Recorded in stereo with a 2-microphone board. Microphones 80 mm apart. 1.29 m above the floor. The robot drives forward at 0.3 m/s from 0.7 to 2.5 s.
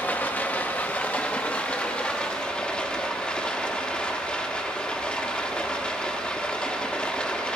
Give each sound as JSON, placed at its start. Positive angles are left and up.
{"t": 0.0, "sound": "running water", "side_deg": 20, "distance_m": 0.7}